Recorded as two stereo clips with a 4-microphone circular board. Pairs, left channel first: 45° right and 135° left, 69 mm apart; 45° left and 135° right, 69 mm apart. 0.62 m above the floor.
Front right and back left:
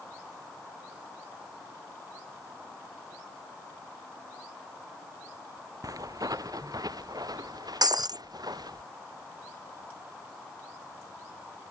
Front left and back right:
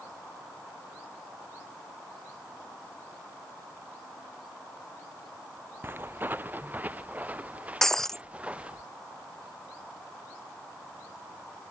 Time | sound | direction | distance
5.8 | footsteps | 165° left | ?
7.8 | breaking glass | 130° left | ?